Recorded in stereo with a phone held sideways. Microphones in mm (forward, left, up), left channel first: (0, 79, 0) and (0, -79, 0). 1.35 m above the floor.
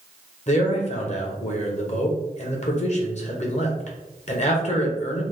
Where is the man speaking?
50° left (ahead or behind), 0.9 m.